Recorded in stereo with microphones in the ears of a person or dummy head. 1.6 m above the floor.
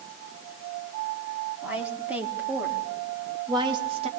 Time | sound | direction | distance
1.6 | a woman speaking | 10° right (ahead or behind) | 4.5 m